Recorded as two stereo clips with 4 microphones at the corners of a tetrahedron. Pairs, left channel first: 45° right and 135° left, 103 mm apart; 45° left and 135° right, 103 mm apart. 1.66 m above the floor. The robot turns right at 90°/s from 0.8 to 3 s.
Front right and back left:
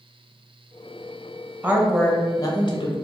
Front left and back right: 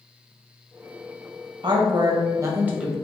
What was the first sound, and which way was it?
A woman speaking, 160° right.